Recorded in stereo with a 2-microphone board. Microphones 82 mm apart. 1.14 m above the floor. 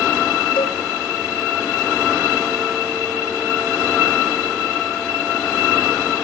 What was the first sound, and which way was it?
A cowbell, 75° left (ahead or behind).